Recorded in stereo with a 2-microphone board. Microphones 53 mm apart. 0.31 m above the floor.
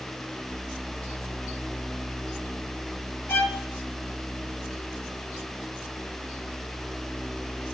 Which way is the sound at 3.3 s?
60° left (ahead or behind).